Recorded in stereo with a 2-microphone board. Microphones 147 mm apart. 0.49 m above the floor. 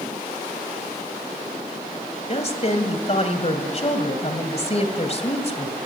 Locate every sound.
2.3 s a woman speaking: 45° left (ahead or behind), 2.5 m